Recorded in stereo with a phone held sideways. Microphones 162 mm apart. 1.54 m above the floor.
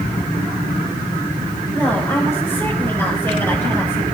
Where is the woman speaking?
15° left (ahead or behind), 6 m.